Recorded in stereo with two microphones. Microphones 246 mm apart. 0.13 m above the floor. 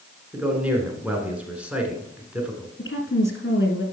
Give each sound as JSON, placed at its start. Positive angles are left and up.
{"t": 0.3, "sound": "a man speaking", "side_deg": -5, "distance_m": 1.8}
{"t": 2.8, "sound": "a woman speaking", "side_deg": 50, "distance_m": 2.0}